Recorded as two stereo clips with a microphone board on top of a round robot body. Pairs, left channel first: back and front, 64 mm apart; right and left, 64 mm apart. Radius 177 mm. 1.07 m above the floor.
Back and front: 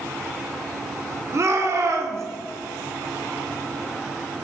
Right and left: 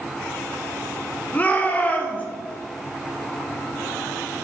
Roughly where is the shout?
Ahead right.